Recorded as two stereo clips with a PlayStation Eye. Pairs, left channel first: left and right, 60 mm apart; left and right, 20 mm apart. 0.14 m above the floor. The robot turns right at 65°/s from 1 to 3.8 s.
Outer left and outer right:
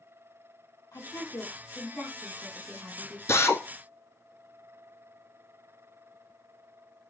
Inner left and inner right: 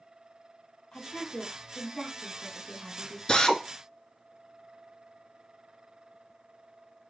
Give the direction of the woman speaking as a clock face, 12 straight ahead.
9 o'clock.